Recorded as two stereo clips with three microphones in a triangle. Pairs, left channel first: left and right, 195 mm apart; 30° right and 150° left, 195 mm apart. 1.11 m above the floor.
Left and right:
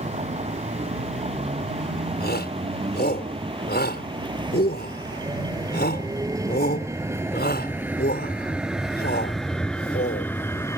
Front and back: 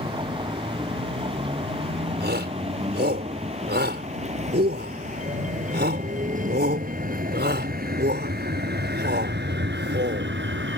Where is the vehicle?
145° right; by 10.8 s 165° left.